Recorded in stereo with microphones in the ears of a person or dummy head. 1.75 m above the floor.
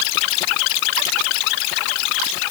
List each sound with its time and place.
Only background noise.